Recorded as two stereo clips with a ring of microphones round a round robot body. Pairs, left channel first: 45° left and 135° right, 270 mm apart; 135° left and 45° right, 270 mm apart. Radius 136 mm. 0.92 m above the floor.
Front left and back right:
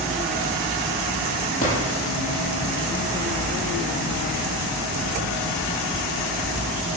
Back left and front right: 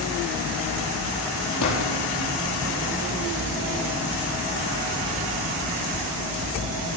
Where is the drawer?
110° left, 8 m.